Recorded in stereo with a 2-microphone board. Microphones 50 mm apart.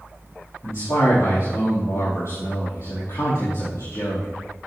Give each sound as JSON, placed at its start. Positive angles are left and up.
{"t": 0.6, "sound": "a man speaking", "side_deg": 65, "distance_m": 3.5}